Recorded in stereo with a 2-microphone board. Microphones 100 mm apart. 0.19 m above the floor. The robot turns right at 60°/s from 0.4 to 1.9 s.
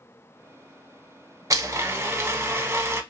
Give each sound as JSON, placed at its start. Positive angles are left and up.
{"t": 1.5, "sound": "a blender", "side_deg": -35, "distance_m": 0.5}